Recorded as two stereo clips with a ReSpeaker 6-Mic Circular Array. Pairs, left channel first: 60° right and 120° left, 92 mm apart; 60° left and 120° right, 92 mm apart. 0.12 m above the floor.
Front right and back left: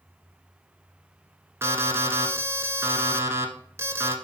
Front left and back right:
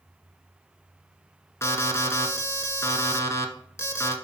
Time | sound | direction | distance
1.6 | an alarm | 90° left | 1.2 m